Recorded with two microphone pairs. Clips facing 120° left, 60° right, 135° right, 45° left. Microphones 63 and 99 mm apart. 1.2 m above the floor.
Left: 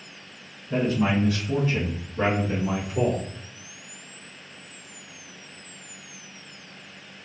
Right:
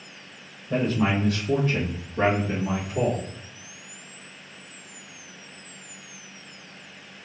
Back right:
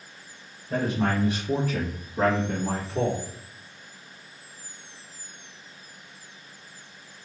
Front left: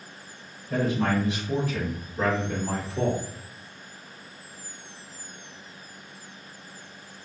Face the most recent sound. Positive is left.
turn(degrees=-125)